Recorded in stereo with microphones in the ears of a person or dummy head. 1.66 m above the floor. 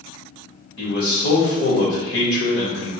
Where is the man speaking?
60° left (ahead or behind), 1.9 m.